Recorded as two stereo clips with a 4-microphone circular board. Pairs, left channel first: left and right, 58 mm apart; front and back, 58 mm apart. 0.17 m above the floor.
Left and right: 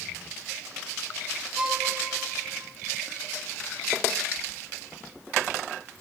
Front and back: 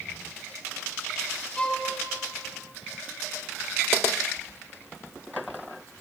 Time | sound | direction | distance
1.6 | a violin | 45° right | 1.1 m